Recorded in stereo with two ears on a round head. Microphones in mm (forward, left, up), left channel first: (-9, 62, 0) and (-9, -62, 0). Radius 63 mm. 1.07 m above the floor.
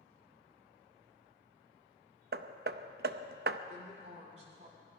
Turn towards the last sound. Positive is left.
turn(degrees=-45)  # may be behind; listen again after turning